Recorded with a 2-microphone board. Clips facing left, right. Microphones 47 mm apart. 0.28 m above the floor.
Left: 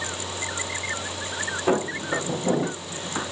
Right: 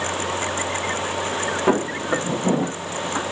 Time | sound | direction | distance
1.7 | footsteps | 40° right (ahead or behind) | 5 m